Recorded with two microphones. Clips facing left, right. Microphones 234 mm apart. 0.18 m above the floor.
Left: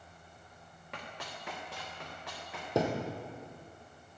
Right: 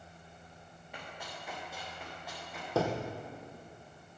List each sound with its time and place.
0.9 s running footsteps: 75° left (ahead or behind), 3.5 m; by 2.6 s 85° left, 5.5 m
2.8 s a thud: 15° left (ahead or behind), 1.8 m